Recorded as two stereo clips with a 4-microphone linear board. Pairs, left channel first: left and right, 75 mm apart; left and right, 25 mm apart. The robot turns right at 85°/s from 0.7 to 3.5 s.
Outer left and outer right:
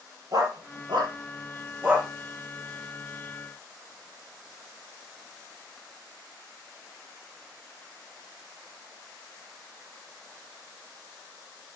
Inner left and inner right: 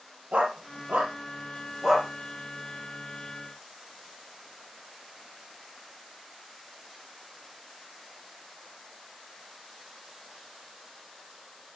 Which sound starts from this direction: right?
A dog barking, at 0.3 s.